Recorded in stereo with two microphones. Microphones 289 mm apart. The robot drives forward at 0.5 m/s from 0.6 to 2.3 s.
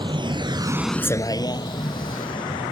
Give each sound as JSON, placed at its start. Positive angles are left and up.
{"t": 0.0, "sound": "a vehicle", "side_deg": -15}